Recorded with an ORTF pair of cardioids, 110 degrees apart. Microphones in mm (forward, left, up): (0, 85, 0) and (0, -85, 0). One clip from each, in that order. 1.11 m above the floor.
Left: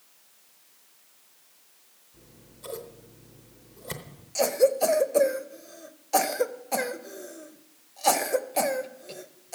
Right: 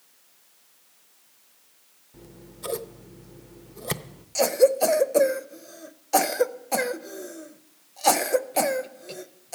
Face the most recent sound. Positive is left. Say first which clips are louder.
# right 3 dB
turn(degrees=-15)